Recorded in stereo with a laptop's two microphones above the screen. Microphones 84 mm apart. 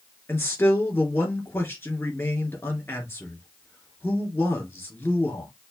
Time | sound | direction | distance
0.3 | a man speaking | 30° left (ahead or behind) | 2.5 m